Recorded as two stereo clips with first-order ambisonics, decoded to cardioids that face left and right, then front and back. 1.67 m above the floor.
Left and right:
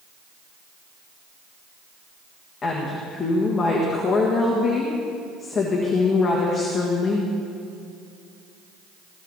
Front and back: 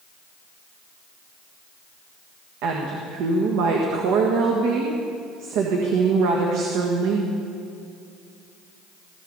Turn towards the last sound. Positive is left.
turn(degrees=160)